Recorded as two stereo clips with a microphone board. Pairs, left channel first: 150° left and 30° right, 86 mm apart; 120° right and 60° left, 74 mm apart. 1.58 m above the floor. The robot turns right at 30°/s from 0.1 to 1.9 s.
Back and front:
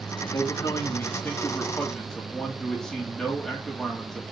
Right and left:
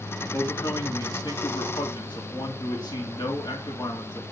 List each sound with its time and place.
0.3 s a man speaking: 170° right, 2.5 m; by 4.2 s 125° right, 2.5 m